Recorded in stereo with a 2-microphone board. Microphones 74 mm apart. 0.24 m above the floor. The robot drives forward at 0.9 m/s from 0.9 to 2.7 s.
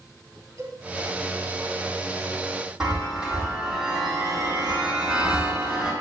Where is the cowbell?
45° right (ahead or behind), 3.5 m.